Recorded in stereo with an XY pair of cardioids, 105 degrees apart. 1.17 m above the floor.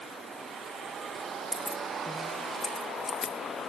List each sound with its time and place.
1.5 s keys jangling: 10° right, 0.6 m; by 3.3 s 50° left, 1.4 m